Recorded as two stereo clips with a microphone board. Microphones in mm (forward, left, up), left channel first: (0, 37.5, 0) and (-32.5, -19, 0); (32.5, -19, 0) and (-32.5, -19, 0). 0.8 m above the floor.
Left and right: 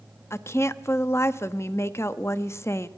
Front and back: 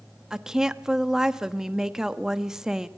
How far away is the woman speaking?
About 0.9 m.